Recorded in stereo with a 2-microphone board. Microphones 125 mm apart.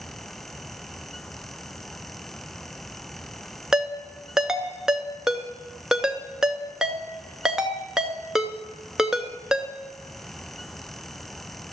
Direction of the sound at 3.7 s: 5° right (ahead or behind).